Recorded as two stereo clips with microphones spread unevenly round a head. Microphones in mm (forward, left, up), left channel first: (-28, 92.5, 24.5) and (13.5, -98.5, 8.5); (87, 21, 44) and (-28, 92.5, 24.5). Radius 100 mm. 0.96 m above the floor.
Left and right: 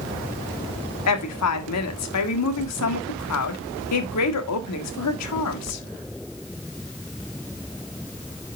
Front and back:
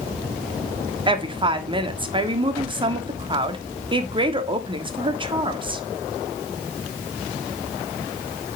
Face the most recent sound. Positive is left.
turn(degrees=95)